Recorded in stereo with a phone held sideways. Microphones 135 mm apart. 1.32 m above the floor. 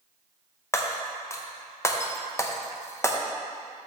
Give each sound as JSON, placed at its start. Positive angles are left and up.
{"t": 0.7, "sound": "breaking glass", "side_deg": 20, "distance_m": 0.6}